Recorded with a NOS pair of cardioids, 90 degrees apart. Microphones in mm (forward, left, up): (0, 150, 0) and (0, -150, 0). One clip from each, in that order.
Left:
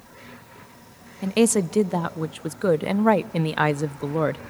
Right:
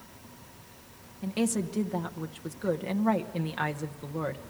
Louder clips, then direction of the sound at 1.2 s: Left 11 dB; 50° left.